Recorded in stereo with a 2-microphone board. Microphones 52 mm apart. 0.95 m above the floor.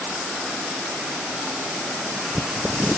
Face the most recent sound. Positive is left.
No sound to turn to.